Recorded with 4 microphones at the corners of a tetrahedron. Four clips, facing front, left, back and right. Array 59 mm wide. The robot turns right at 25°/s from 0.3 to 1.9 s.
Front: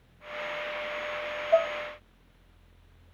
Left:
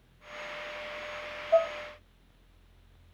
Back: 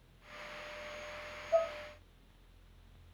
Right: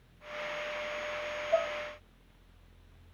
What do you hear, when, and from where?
1.5 s dishes clattering: 45° left, 0.7 m; by 1.7 s 50° left, 0.7 m